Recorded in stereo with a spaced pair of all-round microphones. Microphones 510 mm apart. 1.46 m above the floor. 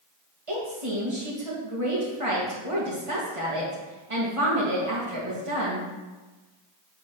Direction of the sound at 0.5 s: 75° right (ahead or behind).